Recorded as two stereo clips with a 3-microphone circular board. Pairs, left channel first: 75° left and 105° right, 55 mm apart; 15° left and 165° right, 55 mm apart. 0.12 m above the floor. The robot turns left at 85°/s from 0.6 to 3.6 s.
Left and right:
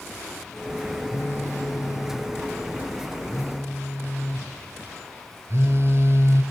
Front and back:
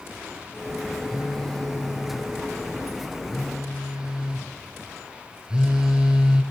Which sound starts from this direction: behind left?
A phone buzzing, at 1.1 s.